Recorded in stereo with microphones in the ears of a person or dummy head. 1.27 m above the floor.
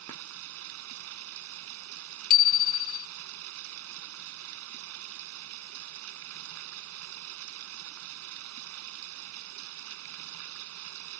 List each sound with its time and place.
0.0 s running water: 85° right
2.3 s a bicycle bell: 50° left (ahead or behind)